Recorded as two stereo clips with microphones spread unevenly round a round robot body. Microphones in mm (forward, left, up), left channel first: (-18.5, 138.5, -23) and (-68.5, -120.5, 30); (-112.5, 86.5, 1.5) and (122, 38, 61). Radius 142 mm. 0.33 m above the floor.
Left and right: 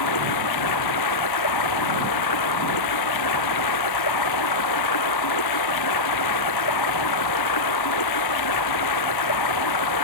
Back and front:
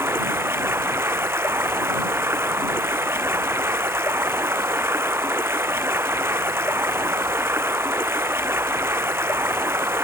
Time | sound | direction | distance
0.0 | running water | 70° left | ?